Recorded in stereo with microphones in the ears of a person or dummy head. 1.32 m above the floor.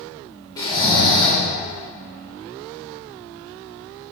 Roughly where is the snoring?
Centre.